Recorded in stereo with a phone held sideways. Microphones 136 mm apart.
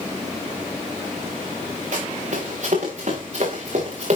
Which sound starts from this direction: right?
Running footsteps, at 1.9 s.